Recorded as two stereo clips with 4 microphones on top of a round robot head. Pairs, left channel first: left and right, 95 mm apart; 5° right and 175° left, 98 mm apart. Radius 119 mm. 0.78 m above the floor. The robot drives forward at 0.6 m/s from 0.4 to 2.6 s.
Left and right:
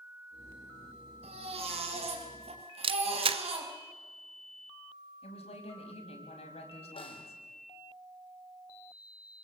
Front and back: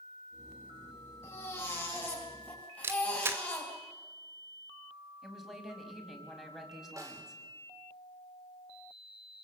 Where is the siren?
I don't hear a siren.